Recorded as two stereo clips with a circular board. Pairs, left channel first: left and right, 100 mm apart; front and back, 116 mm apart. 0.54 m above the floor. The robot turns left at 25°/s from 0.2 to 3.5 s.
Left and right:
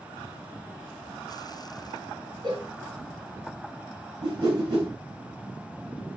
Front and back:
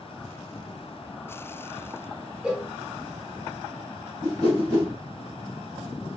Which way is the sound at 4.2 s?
45° right.